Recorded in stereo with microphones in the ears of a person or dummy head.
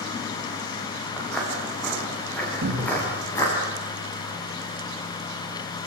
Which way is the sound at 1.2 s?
Centre (ahead or behind).